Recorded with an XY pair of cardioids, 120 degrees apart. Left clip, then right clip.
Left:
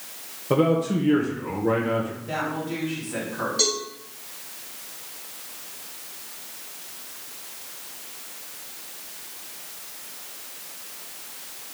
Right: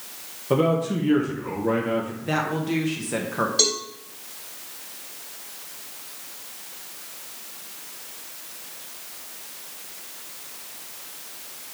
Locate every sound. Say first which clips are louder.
0.5 s a man speaking: even; 5° left, 1.3 m
2.2 s a woman speaking: right 3 dB; 65° right, 2 m
3.6 s a cowbell: right 1 dB; 35° right, 3 m